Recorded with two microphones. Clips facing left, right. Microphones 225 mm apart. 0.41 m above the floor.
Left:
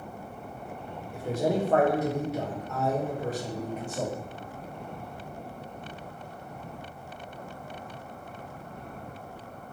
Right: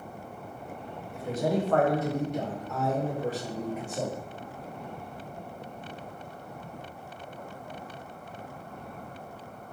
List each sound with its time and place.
1.1 s a man speaking: 30° left (ahead or behind), 1.0 m; by 4.2 s 20° right (ahead or behind), 1.4 m